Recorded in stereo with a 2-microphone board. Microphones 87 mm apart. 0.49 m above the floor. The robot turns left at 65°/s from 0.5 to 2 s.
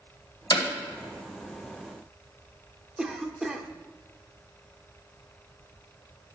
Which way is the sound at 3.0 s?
5° right (ahead or behind).